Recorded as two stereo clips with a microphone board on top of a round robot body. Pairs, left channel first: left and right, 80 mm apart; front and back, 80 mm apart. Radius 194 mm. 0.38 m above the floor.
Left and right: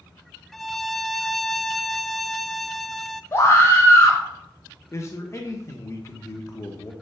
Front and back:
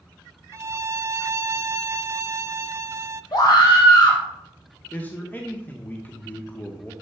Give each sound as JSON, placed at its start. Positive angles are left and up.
{"t": 0.5, "sound": "a violin", "azimuth_deg": 180, "distance_m": 0.6}
{"t": 3.3, "sound": "a scream", "azimuth_deg": 35, "distance_m": 3.0}
{"t": 4.9, "sound": "a man speaking", "azimuth_deg": 60, "distance_m": 1.3}